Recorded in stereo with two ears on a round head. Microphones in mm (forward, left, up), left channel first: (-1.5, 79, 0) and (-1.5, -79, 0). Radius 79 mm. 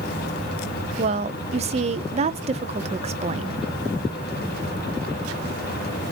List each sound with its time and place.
1.0 s a woman speaking: 35° right (ahead or behind), 0.9 m